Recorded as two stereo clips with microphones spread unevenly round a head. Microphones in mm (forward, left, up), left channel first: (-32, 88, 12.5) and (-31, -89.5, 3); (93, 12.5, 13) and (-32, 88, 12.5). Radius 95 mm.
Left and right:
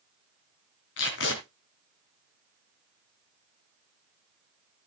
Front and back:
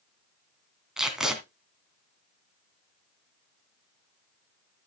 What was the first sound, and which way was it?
Tape being pulled, 65° left.